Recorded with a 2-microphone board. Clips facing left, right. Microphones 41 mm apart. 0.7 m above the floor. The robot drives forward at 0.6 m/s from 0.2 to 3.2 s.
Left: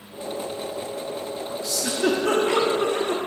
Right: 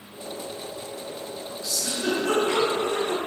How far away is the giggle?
About 1.2 m.